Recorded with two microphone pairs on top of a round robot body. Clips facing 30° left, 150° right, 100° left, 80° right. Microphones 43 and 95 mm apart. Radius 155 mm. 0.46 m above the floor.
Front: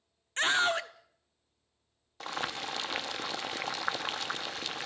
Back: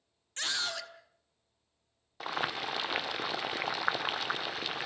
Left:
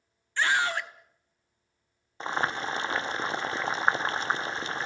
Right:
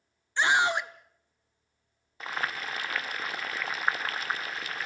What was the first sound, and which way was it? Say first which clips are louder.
A scream: front 8 dB, right 2 dB; 10° right.